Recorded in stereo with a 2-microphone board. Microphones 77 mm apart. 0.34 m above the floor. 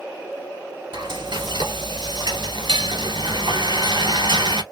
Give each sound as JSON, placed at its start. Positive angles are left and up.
{"t": 0.9, "sound": "frying", "side_deg": -75, "distance_m": 1.6}